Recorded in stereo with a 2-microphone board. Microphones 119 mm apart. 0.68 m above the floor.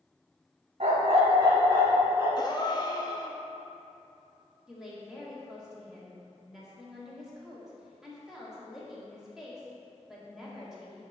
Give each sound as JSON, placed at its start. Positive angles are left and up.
{"t": 0.8, "sound": "a dog barking", "side_deg": -65, "distance_m": 1.4}
{"t": 2.4, "sound": "a gasp", "side_deg": 35, "distance_m": 0.7}
{"t": 4.7, "sound": "a woman speaking", "side_deg": -5, "distance_m": 1.7}